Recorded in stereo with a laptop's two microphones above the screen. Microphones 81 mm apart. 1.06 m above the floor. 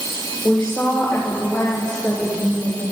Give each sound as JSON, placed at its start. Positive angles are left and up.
{"t": 0.4, "sound": "a woman speaking", "side_deg": 15, "distance_m": 4.5}